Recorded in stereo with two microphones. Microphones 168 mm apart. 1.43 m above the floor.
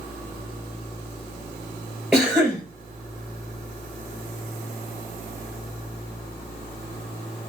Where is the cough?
Centre (ahead or behind), 2 m.